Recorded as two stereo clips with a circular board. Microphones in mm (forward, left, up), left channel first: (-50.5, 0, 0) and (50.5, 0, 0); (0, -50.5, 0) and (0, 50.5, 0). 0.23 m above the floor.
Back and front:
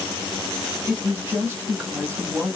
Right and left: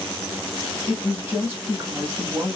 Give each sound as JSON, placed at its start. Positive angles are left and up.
{"t": 0.9, "sound": "a woman speaking", "azimuth_deg": 45, "distance_m": 1.4}